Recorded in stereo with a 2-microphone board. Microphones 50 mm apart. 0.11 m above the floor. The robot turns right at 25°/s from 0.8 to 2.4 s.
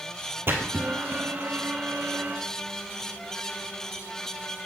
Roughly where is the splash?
Right.